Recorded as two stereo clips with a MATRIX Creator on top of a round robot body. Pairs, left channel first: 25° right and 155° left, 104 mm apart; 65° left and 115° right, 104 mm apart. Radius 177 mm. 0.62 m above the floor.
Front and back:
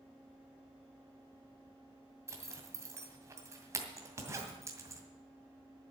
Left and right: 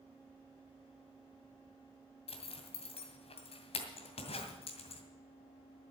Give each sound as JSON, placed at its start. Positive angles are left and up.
{"t": 2.3, "sound": "a zipper", "azimuth_deg": 95, "distance_m": 2.0}